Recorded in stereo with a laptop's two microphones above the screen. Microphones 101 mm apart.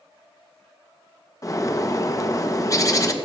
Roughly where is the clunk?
No clunk in this recording.